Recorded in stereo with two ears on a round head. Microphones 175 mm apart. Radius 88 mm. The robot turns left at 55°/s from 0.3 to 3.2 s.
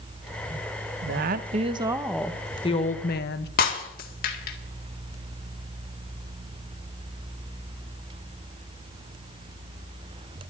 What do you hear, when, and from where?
1.0 s a woman speaking: 115° right, 1.0 m; by 3.5 s 125° left, 1.0 m
3.6 s breaking glass: 45° left (ahead or behind), 1.9 m